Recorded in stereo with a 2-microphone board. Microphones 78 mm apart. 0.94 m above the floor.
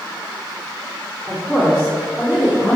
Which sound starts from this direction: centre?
A woman speaking, at 1.3 s.